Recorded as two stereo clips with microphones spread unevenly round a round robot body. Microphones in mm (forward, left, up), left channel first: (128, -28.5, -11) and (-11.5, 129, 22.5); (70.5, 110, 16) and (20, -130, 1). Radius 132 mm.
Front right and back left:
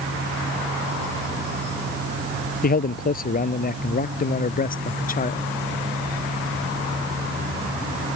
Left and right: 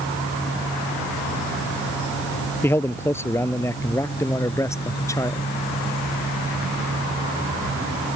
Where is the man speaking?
Straight ahead.